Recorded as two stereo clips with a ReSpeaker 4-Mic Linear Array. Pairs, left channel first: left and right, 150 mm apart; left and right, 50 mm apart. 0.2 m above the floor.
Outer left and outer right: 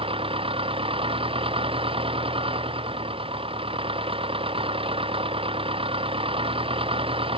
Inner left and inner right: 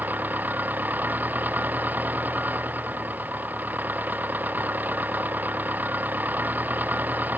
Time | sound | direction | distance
0.0 | an engine running | 40° right (ahead or behind) | ?